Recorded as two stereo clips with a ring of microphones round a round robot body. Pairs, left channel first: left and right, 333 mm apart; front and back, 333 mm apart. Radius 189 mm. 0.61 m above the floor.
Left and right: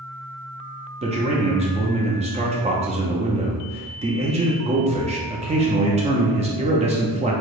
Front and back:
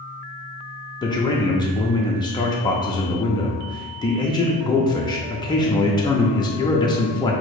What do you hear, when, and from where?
1.0 s a man speaking: 55° right, 0.6 m